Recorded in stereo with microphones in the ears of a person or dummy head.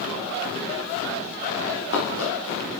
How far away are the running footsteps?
About 8 m.